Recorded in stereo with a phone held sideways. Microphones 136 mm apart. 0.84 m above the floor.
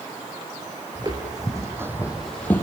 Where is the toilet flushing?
No toilet flushing in this recording.